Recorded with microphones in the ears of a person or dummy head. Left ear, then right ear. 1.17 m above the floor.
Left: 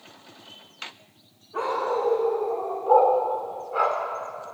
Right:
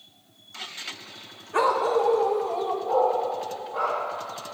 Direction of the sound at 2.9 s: 50° left (ahead or behind).